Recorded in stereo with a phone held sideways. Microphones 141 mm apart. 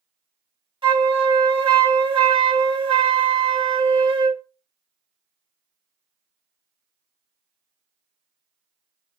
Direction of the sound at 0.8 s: 35° right (ahead or behind).